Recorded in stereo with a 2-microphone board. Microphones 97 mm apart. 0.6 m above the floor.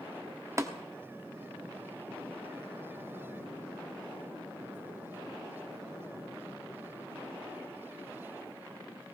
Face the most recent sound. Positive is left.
turn(degrees=-30)  # may be behind; listen again after turning